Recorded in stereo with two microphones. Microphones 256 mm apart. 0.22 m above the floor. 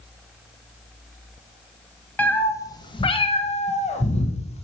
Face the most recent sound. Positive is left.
turn(degrees=25)  # may be behind; listen again after turning